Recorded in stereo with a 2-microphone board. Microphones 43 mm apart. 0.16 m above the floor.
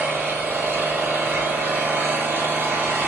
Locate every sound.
0.0 s an engine running: 75° right (ahead or behind), 1.3 m